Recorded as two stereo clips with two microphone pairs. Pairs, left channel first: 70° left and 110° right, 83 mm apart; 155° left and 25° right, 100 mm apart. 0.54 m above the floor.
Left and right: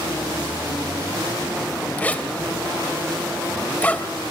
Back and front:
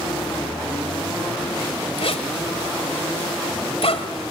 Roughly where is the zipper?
Behind left.